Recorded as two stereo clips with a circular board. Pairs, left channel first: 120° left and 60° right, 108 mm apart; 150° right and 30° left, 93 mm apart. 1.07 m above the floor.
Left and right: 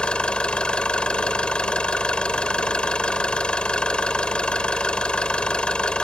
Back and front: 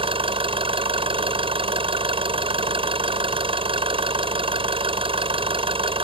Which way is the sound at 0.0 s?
40° left.